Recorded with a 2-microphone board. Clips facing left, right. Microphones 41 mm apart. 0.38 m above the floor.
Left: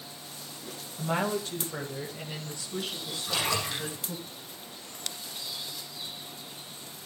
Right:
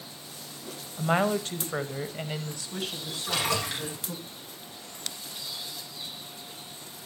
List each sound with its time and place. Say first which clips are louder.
1.0 s a woman speaking: right 4 dB; 45° right (ahead or behind), 2.5 m; by 4.2 s 35° right (ahead or behind), 4.5 m
3.2 s a splash: right 1 dB; 60° right (ahead or behind), 9.5 m